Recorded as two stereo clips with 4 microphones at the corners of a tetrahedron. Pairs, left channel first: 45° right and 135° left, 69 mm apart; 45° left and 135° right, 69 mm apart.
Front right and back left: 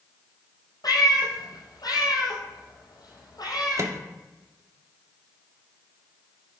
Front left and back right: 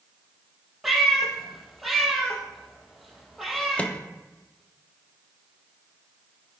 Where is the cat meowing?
45° right, 2.5 m.